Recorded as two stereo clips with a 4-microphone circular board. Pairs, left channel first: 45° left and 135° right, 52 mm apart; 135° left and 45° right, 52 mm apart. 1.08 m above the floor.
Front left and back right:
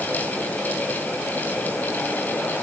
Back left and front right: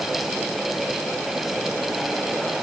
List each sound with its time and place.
Only background noise.